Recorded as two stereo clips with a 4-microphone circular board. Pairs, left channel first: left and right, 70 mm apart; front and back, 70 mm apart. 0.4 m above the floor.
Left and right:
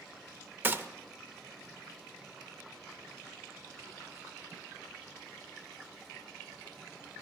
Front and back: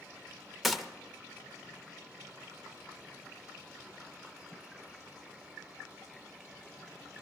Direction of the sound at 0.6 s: 90° right.